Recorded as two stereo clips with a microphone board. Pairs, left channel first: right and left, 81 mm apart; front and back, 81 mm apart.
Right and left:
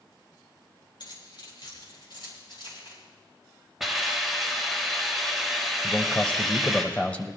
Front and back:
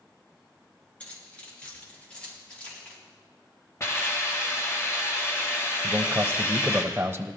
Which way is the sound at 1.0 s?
75° right.